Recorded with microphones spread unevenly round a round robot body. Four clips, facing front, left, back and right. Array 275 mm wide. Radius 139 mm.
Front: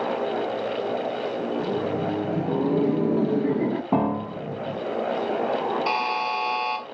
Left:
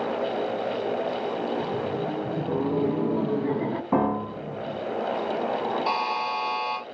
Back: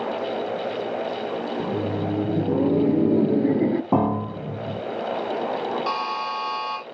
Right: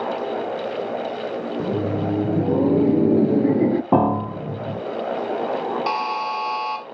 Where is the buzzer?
85° right, 2.5 m.